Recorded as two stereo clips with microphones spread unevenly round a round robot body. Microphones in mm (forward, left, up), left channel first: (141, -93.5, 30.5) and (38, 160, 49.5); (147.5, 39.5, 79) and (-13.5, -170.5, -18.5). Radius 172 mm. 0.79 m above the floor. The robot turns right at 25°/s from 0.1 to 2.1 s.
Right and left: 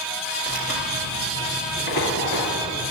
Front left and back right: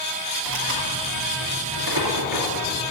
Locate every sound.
0.5 s tearing paper: 165° right, 3 m; by 2.9 s 125° right, 3 m